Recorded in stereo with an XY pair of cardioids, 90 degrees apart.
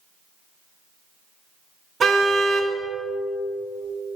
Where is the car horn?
50° right, 2.5 m.